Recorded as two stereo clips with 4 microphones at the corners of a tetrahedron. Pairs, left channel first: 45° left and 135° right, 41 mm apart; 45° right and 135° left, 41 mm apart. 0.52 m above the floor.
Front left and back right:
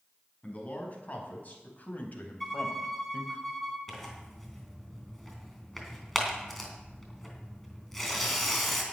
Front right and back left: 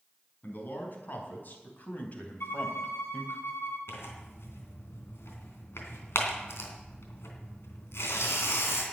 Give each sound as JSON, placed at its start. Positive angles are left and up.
{"t": 0.4, "sound": "a man speaking", "azimuth_deg": -10, "distance_m": 5.0}
{"t": 2.4, "sound": "a violin", "azimuth_deg": -40, "distance_m": 3.0}
{"t": 3.9, "sound": "tearing paper", "azimuth_deg": -40, "distance_m": 3.0}